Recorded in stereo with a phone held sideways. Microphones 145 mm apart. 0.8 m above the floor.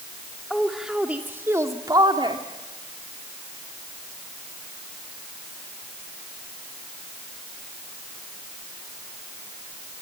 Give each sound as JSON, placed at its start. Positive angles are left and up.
{"t": 0.5, "sound": "a woman speaking", "side_deg": 0, "distance_m": 2.0}